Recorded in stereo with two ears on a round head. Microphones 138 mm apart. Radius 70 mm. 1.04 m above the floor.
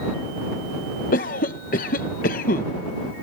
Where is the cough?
55° left (ahead or behind).